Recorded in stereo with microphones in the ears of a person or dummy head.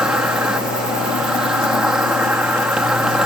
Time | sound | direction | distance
0.0 | an insect | centre (ahead or behind) | ?